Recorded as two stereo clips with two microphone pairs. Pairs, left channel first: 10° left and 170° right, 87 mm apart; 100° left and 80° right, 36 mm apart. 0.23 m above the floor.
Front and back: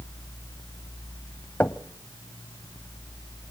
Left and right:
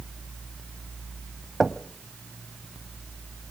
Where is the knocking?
10° right, 0.8 m.